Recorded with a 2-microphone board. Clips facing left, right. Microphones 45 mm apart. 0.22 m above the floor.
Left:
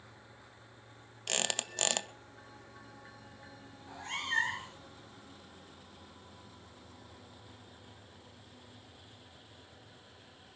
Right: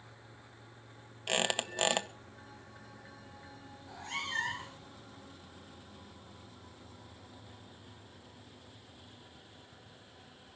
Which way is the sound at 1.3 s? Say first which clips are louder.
Right 4 dB; 15° right (ahead or behind).